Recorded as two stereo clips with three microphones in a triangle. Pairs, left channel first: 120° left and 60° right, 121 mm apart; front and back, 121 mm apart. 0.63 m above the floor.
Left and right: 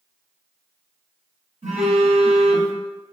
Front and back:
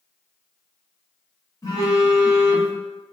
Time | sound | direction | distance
1.6 | a phone buzzing | 60° right | 0.8 m